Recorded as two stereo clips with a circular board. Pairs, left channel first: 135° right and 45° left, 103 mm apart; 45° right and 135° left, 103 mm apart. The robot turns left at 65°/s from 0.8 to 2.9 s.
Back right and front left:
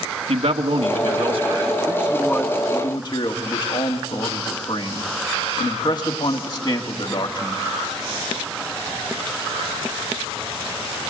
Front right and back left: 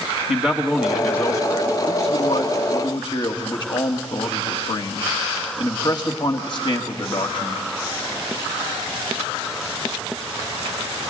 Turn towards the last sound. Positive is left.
turn(degrees=-90)